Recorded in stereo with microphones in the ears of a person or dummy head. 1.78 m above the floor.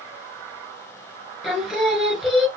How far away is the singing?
About 2.5 m.